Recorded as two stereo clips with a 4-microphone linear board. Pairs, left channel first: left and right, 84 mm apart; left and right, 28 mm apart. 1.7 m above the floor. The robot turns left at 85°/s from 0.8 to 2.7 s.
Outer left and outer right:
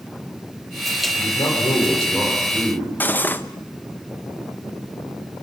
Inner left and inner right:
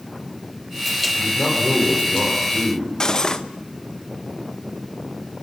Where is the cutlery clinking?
25° left (ahead or behind), 0.9 m.